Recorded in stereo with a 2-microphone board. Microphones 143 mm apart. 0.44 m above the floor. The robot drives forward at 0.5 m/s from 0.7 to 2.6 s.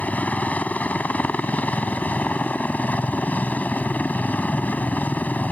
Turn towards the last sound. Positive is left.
turn(degrees=10)  # may be behind; listen again after turning